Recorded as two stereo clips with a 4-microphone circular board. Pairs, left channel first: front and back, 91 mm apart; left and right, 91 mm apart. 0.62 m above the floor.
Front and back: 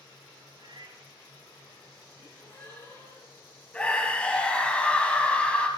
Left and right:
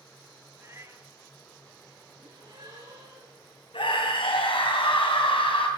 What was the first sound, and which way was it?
A cat meowing, 150° right.